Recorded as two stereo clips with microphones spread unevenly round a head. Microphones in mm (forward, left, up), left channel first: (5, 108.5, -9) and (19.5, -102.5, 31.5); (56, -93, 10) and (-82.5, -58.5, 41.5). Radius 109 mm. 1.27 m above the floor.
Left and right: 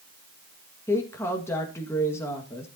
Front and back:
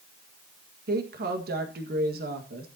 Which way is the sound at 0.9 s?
170° left.